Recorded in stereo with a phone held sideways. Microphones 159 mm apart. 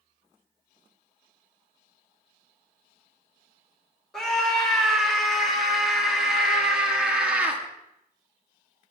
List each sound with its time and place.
4.1 s a scream: 5° left (ahead or behind), 4 m; by 7.6 s 10° right (ahead or behind), 2 m